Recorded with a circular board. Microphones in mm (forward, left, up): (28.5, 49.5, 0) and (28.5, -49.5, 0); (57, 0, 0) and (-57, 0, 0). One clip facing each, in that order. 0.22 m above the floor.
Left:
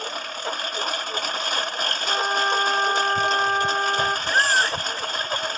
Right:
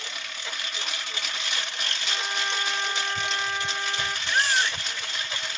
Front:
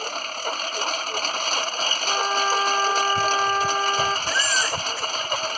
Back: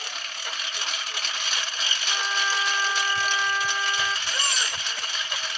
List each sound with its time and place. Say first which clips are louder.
0.0 s a lawn mower: left 8 dB, front 9 dB; 45° left
2.1 s a trumpet: left 9 dB, front 6 dB; 45° left
4.3 s a baby crying: left 1 dB, front 6 dB; 145° left